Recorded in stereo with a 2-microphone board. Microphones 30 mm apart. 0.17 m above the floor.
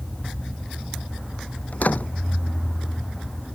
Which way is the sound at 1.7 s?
55° left (ahead or behind).